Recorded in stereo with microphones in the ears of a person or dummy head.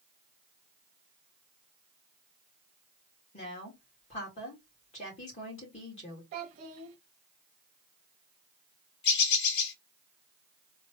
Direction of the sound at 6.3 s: 40° right (ahead or behind).